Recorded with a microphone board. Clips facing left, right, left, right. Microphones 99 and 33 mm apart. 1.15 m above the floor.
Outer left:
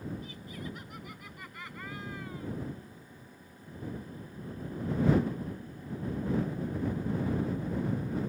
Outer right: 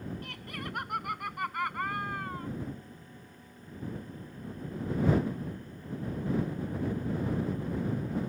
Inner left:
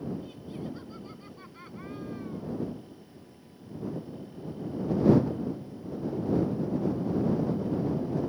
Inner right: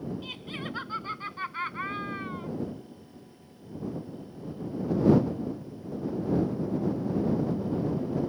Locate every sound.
0.2 s laughter: 70° right (ahead or behind); by 2.5 s 55° right (ahead or behind)